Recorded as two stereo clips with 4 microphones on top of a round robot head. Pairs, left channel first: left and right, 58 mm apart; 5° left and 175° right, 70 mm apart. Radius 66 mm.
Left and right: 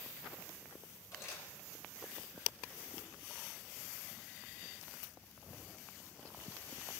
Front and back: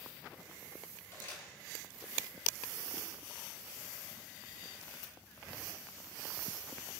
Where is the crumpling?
60° left, 9.5 m.